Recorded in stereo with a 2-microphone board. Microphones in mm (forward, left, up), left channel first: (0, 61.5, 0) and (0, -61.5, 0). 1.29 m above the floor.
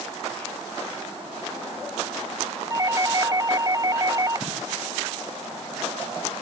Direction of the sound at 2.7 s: 30° right (ahead or behind).